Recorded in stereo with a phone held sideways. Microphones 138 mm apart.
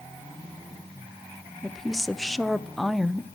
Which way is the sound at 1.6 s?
Centre (ahead or behind).